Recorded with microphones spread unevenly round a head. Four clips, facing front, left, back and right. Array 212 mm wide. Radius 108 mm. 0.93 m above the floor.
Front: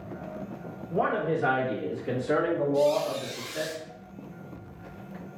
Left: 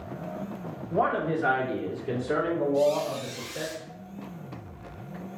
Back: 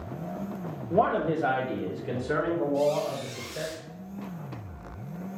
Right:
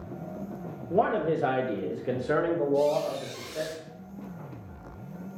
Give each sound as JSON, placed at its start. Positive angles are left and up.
{"t": 0.9, "sound": "a man speaking", "azimuth_deg": -125, "distance_m": 1.0}
{"t": 2.7, "sound": "a squeak", "azimuth_deg": -40, "distance_m": 1.9}